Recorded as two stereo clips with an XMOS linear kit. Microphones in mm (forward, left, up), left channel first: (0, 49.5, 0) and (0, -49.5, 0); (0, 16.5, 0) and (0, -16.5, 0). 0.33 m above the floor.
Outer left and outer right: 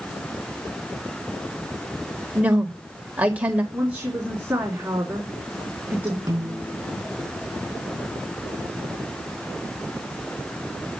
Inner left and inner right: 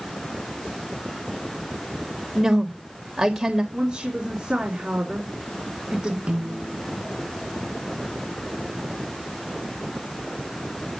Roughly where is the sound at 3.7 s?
Centre.